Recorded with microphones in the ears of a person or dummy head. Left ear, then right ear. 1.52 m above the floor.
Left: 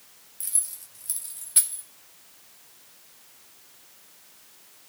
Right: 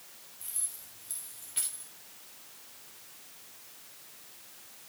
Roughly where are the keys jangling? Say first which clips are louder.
Left 8 dB; left.